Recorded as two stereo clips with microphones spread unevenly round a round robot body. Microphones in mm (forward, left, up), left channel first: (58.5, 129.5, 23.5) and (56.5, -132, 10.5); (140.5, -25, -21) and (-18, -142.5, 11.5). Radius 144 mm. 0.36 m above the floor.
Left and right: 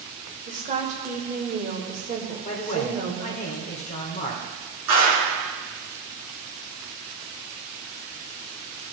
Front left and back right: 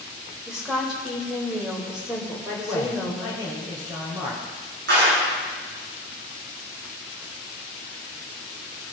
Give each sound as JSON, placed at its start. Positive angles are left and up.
{"t": 0.5, "sound": "a woman speaking", "azimuth_deg": -45, "distance_m": 1.2}
{"t": 2.5, "sound": "a man speaking", "azimuth_deg": 140, "distance_m": 1.0}
{"t": 4.9, "sound": "a clap", "azimuth_deg": -120, "distance_m": 3.0}